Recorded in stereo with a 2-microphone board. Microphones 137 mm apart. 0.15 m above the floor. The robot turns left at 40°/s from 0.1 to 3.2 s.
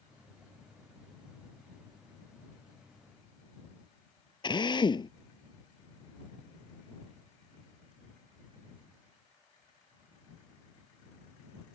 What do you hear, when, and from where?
4.4 s a drill: 35° left (ahead or behind)